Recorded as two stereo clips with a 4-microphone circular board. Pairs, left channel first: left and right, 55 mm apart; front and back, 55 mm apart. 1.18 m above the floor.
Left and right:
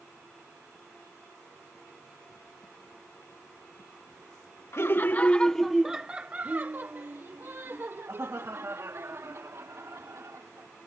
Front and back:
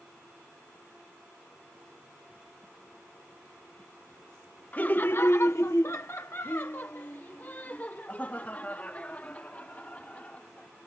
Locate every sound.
4.7 s laughter: 60° left; by 10.7 s 65° right